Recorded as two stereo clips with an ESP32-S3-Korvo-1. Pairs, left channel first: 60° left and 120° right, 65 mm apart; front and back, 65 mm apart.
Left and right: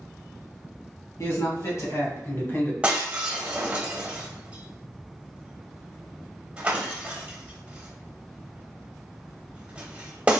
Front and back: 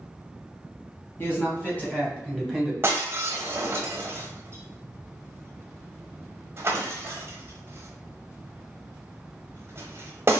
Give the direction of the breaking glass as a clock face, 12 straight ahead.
6 o'clock.